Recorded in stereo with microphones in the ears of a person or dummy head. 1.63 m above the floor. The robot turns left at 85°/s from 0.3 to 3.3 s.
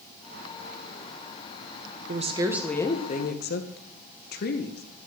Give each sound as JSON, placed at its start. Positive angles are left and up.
{"t": 2.1, "sound": "a woman speaking", "azimuth_deg": -130, "distance_m": 1.6}